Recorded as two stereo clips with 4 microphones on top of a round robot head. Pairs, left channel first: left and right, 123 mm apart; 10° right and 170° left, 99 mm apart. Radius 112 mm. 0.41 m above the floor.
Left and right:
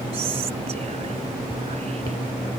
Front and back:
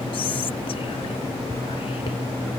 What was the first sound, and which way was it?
Whispering, 50° right.